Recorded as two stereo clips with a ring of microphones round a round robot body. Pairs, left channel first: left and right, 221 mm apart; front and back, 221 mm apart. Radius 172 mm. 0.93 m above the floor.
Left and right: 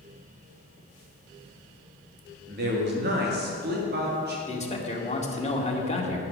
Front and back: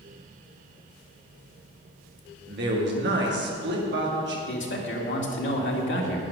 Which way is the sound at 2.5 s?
140° right.